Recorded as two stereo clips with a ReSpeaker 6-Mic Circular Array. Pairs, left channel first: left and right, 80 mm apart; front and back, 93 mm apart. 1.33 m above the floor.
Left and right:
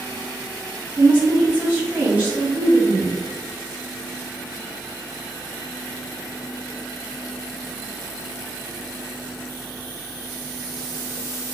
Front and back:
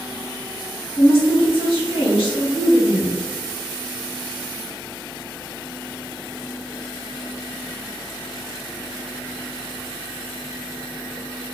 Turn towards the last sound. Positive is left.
turn(degrees=-20)